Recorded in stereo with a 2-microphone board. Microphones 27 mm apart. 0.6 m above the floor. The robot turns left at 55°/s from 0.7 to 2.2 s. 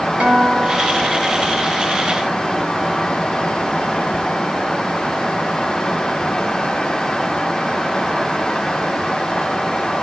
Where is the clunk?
No clunk in this recording.